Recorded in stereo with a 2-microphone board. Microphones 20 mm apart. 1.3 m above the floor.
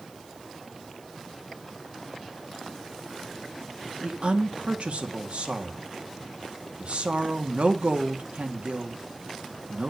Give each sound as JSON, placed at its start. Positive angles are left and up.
{"t": 4.0, "sound": "a woman speaking", "side_deg": -75, "distance_m": 2.0}